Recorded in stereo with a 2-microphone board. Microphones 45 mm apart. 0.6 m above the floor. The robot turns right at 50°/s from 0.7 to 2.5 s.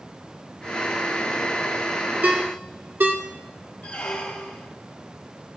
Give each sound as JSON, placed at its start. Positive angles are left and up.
{"t": 2.2, "sound": "a ringtone", "side_deg": -35, "distance_m": 0.8}
{"t": 3.8, "sound": "a squeak", "side_deg": 40, "distance_m": 2.5}